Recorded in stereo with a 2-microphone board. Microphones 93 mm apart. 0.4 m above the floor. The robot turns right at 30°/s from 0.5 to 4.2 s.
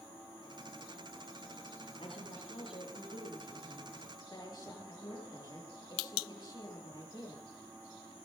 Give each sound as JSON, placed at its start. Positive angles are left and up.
{"t": 2.0, "sound": "a woman speaking", "azimuth_deg": 65, "distance_m": 7.5}